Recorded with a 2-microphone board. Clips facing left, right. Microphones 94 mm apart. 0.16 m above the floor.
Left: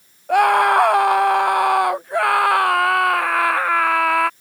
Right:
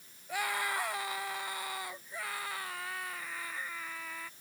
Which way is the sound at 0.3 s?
70° left (ahead or behind).